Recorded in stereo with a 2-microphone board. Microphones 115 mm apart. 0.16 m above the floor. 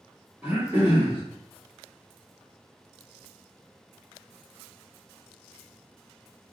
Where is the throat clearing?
20° right (ahead or behind), 1.6 m.